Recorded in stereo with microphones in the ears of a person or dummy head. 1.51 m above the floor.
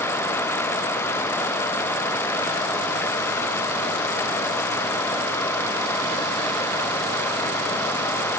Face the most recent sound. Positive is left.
No sound to turn to.